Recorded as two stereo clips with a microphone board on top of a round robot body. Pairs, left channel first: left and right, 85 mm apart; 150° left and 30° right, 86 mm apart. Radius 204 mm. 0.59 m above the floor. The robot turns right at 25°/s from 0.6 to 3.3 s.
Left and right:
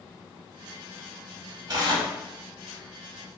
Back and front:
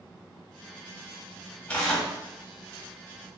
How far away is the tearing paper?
About 1.1 m.